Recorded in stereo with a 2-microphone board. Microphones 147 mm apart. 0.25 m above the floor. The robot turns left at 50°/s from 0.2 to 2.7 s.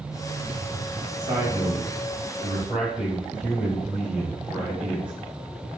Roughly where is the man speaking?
Right.